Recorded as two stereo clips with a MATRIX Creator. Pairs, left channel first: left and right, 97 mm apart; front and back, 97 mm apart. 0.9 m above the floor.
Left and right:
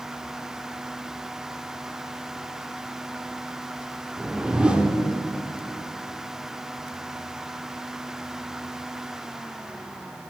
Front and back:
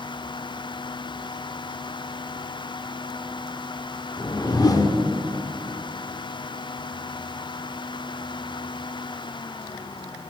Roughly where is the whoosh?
Ahead.